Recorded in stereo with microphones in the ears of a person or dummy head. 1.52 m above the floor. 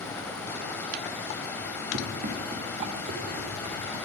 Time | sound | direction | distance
0.0 | running water | 20° left (ahead or behind) | 2.5 m
1.9 | running footsteps | 35° right (ahead or behind) | 3.5 m